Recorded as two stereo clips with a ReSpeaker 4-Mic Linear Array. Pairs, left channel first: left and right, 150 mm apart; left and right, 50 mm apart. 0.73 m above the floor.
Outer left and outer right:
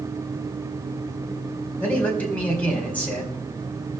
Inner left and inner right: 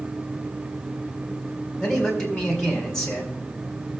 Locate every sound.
1.8 s a man speaking: 10° left (ahead or behind), 4.5 m